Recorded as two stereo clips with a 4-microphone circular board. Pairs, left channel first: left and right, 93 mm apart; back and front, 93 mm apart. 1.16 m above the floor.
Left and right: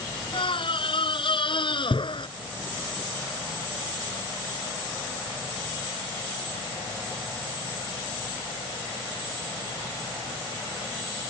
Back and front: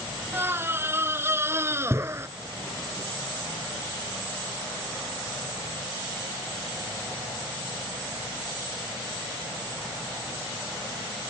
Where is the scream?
65° left; by 2.3 s 60° left.